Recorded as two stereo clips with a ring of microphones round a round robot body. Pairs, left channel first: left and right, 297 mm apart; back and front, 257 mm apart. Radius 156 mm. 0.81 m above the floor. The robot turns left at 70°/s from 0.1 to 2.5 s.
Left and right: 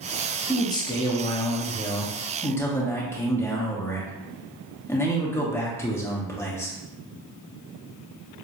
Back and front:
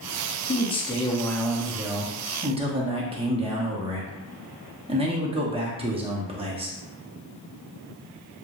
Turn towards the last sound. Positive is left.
turn(degrees=20)